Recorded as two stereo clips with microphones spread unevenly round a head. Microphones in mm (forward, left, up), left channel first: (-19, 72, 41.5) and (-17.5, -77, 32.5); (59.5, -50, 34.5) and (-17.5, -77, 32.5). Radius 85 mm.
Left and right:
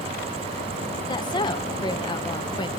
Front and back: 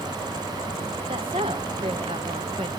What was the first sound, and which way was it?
A woman speaking, 150° left.